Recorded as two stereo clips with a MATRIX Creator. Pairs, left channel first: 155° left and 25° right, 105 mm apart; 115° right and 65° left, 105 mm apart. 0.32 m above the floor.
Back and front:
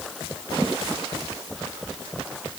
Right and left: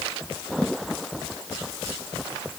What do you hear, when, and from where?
Only background noise.